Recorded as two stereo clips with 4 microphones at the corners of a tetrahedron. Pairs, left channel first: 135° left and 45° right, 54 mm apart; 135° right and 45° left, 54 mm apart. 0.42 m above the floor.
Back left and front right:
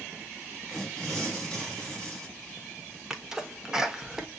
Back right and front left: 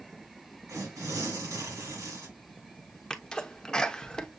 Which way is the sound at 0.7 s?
55° left.